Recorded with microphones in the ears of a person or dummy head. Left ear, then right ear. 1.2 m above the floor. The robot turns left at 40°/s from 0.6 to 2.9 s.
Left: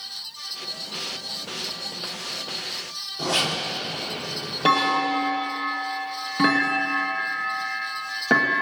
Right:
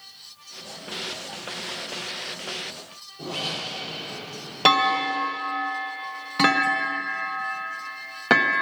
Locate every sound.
3.2 s a zipper: 50° left (ahead or behind), 4 m
4.7 s a clunk: 40° right (ahead or behind), 1.5 m